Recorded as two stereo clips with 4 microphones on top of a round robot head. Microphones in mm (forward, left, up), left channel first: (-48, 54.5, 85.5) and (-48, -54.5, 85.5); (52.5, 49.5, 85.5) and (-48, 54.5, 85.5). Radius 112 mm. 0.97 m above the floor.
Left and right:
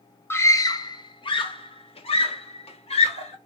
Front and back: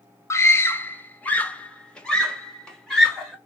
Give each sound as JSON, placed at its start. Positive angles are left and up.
{"t": 0.3, "sound": "a scream", "azimuth_deg": 40, "distance_m": 0.8}